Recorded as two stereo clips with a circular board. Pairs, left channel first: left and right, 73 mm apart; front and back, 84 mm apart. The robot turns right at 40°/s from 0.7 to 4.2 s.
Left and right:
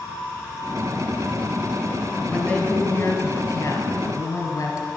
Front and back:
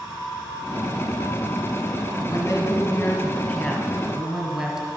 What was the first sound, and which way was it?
A woman speaking, 30° left.